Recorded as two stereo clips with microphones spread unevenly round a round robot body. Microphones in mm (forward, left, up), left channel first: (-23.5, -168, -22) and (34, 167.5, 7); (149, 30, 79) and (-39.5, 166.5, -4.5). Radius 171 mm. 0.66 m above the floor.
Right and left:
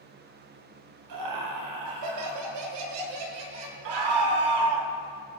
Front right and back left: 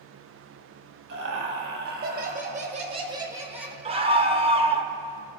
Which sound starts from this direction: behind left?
Laughter, at 1.1 s.